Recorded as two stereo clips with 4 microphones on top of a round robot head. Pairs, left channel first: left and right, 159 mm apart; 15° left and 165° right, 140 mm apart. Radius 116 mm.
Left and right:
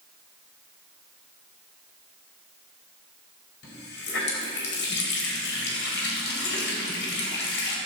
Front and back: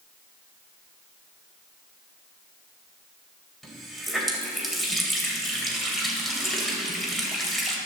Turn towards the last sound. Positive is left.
turn(degrees=105)